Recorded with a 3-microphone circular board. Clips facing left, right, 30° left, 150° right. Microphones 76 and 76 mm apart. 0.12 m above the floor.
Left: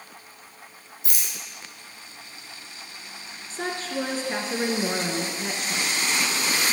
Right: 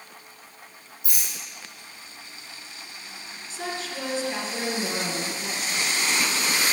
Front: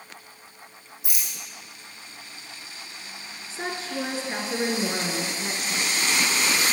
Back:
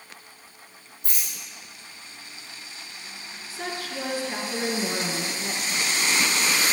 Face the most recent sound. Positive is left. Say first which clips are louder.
# left 3 dB, front 2 dB
turn(degrees=80)